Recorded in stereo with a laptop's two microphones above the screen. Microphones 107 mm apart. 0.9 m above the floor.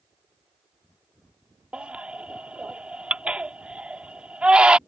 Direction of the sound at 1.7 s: 10° right (ahead or behind).